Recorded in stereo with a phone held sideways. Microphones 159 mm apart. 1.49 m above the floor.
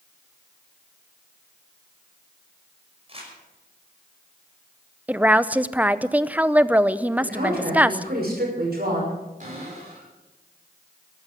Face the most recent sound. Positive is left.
turn(degrees=-55)  # may be behind; listen again after turning